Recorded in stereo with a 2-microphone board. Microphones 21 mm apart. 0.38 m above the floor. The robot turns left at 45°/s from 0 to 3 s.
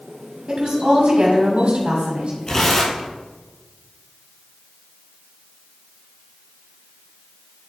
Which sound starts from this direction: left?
Tearing paper, at 2.5 s.